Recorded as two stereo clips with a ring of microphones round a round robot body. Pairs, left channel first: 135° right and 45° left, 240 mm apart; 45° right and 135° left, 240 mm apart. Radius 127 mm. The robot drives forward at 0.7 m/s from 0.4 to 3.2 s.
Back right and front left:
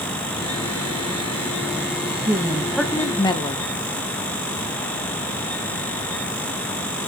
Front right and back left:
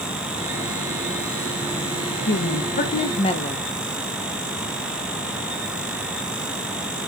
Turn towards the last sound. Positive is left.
turn(degrees=-80)